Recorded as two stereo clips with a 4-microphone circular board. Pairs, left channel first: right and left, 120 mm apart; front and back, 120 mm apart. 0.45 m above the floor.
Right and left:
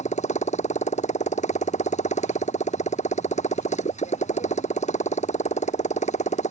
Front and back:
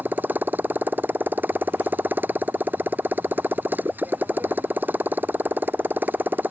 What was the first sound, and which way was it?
A motorcycle, 105° right.